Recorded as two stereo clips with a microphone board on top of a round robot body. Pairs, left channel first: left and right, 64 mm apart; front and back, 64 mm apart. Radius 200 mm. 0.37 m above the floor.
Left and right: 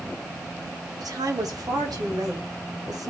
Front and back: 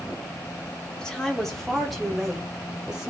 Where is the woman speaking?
75° right, 3 m; by 3.1 s 100° right, 4 m.